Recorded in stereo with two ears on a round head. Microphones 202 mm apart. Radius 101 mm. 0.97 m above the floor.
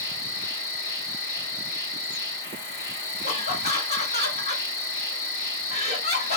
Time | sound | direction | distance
0.0 | an insect | 40° left (ahead or behind) | 1.2 m
3.2 | laughter | 35° left (ahead or behind) | 1.7 m